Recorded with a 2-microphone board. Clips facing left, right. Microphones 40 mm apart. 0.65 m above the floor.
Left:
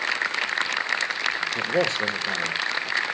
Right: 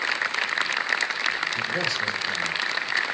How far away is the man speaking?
About 1.5 m.